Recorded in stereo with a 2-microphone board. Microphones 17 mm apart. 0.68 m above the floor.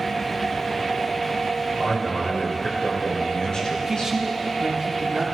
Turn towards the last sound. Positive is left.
turn(degrees=-40)  # may be behind; listen again after turning